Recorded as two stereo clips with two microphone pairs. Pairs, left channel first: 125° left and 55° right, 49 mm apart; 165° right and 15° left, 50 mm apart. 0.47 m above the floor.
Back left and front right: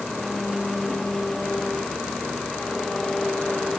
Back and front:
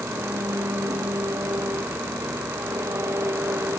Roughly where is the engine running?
Ahead left.